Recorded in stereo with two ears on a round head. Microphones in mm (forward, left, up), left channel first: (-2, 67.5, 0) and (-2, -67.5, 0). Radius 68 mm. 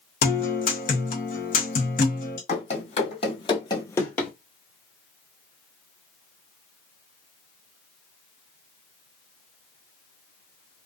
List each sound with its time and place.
0.2 s a guitar: 60° left (ahead or behind), 1.0 m
2.5 s running footsteps: 50° left (ahead or behind), 1.9 m; by 4.3 s 5° left (ahead or behind), 1.1 m